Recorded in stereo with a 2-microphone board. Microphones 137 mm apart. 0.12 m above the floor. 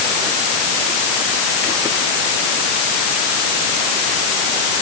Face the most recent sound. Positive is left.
No sound to turn to.